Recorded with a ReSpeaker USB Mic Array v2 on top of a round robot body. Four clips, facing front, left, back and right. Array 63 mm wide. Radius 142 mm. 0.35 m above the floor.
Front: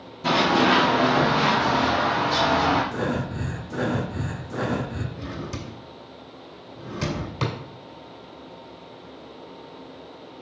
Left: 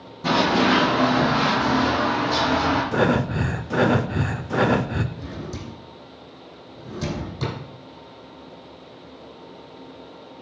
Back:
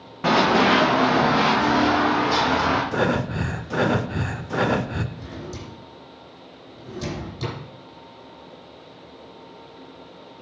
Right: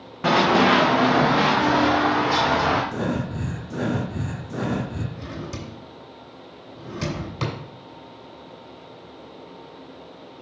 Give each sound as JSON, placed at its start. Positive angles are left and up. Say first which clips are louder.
{"t": 0.2, "sound": "running footsteps", "louder": "right 2 dB, back 2 dB", "azimuth_deg": -140, "distance_m": 1.8}
{"t": 2.9, "sound": "breathing", "louder": "left 6 dB, back 5 dB", "azimuth_deg": 125, "distance_m": 0.6}
{"t": 5.2, "sound": "a drawer", "louder": "even, front 2 dB", "azimuth_deg": -40, "distance_m": 2.0}